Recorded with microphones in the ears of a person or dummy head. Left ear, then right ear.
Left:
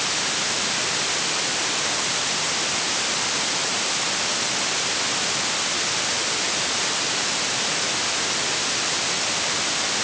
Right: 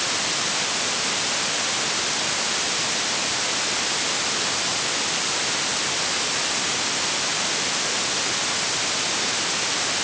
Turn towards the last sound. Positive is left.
No sound to turn to.